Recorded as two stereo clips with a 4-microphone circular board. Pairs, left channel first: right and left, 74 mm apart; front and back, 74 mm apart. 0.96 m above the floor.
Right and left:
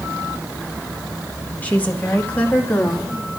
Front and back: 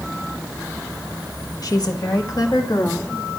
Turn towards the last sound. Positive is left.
turn(degrees=-25)